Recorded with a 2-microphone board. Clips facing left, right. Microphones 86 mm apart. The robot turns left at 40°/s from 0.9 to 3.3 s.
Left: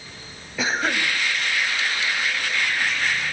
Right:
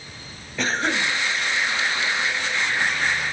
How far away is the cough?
About 3 m.